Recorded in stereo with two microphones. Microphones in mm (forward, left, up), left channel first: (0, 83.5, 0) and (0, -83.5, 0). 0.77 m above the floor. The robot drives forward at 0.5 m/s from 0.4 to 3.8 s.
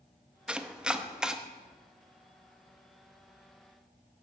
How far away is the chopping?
About 0.7 m.